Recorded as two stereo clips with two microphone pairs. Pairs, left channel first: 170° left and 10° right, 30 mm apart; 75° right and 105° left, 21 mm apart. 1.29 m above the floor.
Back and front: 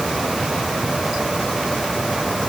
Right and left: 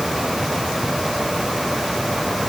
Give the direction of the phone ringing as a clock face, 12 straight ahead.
I don't hear a phone ringing.